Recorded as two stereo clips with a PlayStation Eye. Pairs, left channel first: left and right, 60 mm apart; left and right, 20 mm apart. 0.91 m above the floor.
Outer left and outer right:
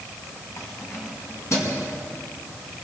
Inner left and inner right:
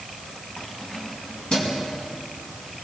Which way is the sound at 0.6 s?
60° left (ahead or behind).